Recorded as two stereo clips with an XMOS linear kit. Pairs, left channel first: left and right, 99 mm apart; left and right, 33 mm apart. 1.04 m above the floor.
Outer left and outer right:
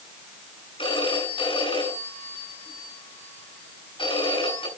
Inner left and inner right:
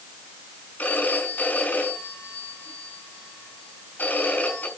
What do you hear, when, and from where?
0.8 s a phone ringing: 60° left (ahead or behind), 6.5 m